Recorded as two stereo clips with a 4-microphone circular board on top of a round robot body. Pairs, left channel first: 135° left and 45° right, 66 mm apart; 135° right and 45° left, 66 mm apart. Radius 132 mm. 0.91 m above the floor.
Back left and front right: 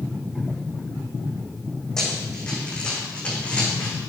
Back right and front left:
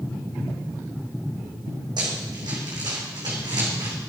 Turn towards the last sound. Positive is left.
turn(degrees=65)